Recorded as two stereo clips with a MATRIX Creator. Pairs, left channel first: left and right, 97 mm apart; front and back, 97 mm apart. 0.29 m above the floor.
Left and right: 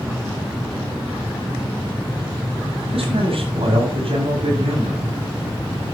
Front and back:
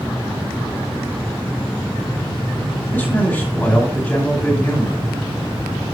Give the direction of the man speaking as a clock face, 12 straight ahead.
2 o'clock.